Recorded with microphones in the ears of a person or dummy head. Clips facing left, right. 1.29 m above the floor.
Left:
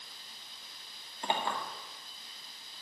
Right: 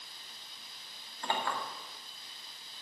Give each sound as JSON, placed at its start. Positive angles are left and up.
{"t": 1.2, "sound": "a clink", "side_deg": 20, "distance_m": 2.0}